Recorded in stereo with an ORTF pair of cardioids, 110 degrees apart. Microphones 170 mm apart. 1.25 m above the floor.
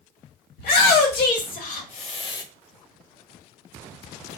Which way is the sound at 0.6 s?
70° left.